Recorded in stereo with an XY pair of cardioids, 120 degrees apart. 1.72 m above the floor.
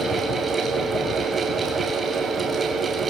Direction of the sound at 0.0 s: 30° right.